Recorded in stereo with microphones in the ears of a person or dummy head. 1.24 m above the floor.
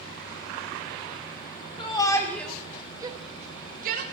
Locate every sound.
1.8 s a shout: 30° left (ahead or behind), 1.8 m; by 4.0 s 50° right (ahead or behind), 2.0 m